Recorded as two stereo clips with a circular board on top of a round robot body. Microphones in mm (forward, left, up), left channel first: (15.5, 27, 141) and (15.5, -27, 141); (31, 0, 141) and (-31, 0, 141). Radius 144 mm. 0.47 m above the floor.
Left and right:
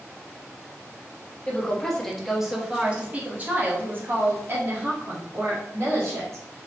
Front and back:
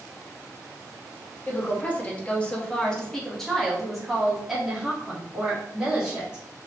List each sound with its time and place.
1.5 s a woman speaking: 30° left, 1.3 m; by 6.4 s 105° right, 2.5 m